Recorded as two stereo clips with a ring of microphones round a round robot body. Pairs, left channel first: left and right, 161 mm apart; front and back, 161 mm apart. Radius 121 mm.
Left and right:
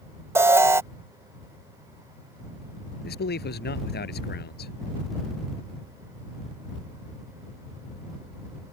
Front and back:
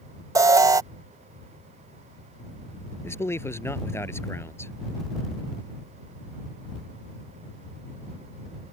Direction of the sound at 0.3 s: 140° right.